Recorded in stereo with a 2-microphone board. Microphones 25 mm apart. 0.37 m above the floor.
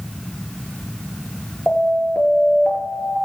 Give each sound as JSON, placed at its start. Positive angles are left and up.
{"t": 1.7, "sound": "an alarm", "side_deg": 70, "distance_m": 6.5}